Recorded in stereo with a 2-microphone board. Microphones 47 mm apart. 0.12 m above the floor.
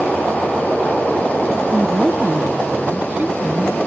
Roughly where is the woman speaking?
Right.